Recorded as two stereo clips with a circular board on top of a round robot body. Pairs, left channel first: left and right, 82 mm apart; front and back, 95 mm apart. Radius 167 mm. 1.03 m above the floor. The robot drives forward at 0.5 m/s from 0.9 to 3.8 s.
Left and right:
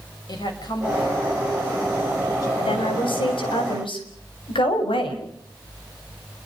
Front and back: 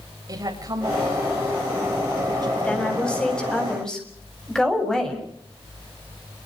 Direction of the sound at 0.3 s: 130° left.